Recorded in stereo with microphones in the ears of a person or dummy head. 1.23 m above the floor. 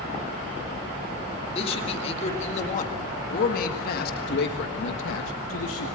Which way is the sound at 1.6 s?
35° left (ahead or behind).